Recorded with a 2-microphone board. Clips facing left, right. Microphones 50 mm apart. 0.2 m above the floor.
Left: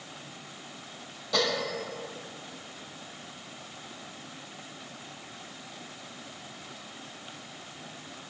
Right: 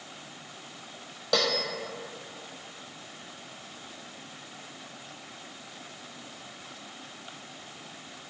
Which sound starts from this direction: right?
A bell, at 1.3 s.